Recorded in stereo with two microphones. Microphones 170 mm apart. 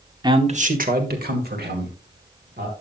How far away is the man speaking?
About 0.8 m.